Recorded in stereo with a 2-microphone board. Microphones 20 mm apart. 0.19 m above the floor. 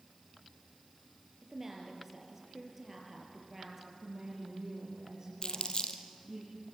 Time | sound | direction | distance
1.4 | a woman speaking | 15° right (ahead or behind) | 5 m
4.0 | a woman speaking | 30° right (ahead or behind) | 7.5 m
5.4 | crumpling | 50° left (ahead or behind) | 1.8 m